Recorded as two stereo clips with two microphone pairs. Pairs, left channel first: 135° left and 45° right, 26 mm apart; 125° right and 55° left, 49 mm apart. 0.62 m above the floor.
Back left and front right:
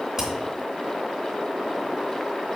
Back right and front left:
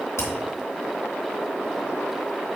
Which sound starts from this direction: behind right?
Hammering, at 0.2 s.